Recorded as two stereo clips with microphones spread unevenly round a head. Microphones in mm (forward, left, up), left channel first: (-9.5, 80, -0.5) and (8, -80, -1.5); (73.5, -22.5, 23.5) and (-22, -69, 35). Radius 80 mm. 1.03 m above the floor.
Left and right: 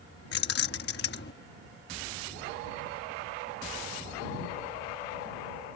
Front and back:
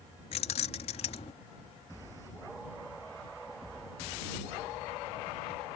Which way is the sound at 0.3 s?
70° left.